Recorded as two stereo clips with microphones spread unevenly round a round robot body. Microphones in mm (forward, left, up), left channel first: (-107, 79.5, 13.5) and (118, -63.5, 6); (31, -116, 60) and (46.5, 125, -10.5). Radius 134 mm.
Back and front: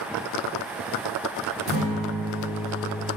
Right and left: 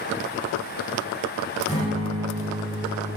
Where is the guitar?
170° right, 5.5 m.